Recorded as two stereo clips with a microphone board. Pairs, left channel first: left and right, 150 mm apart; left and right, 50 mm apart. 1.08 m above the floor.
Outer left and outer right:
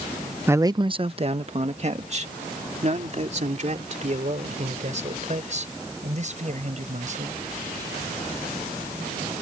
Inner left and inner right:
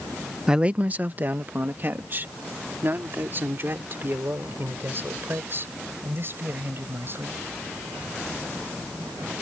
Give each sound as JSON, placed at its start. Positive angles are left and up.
{"t": 0.5, "sound": "a man speaking", "side_deg": -15}